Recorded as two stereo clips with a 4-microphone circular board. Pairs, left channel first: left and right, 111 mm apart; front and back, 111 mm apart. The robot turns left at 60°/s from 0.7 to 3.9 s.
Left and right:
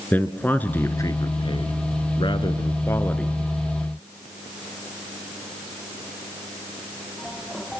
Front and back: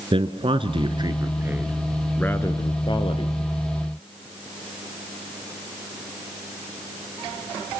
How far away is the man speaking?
About 2 m.